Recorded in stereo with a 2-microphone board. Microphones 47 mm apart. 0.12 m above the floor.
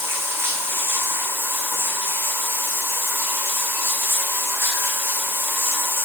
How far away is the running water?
About 3 m.